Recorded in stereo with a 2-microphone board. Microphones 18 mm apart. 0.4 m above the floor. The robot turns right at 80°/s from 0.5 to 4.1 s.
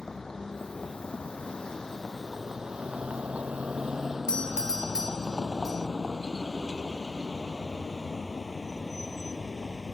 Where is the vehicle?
40° left (ahead or behind); by 9.9 s 10° left (ahead or behind).